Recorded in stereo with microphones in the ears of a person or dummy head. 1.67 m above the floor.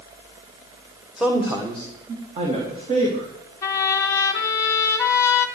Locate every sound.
1.2 s a man speaking: 5° left (ahead or behind), 1.6 m; by 3.3 s 40° right (ahead or behind), 3.5 m
3.6 s a trumpet: 15° left (ahead or behind), 1.7 m